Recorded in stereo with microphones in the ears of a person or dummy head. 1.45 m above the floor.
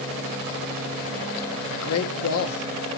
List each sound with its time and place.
1.7 s a man speaking: 80° left, 1.7 m